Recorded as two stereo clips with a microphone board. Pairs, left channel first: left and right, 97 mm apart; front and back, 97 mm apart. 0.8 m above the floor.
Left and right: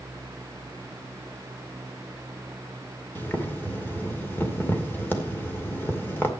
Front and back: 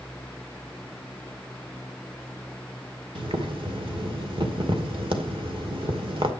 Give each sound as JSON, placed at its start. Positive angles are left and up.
{"t": 3.1, "sound": "boiling", "azimuth_deg": 160, "distance_m": 2.0}